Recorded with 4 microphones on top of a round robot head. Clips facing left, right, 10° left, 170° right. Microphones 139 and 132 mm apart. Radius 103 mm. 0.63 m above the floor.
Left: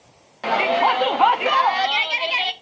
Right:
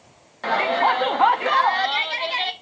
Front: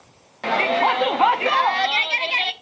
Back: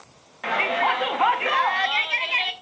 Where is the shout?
20° left, 0.7 m.